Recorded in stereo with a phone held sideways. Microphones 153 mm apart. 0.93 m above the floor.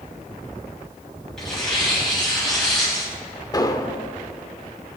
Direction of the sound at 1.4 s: 5° left (ahead or behind).